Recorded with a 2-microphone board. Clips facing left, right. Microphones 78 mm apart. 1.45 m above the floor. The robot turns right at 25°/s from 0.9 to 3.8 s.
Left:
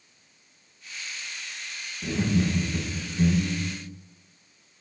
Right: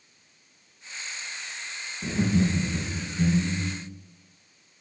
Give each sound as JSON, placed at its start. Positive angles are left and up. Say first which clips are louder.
{"t": 2.0, "sound": "laughter", "louder": "right 1 dB", "azimuth_deg": -10, "distance_m": 1.4}